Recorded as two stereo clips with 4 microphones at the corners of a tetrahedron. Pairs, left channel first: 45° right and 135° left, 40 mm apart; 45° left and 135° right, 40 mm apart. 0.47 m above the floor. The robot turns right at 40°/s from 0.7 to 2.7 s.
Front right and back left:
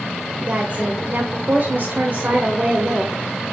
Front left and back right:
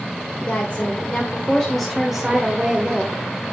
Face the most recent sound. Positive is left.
turn(degrees=170)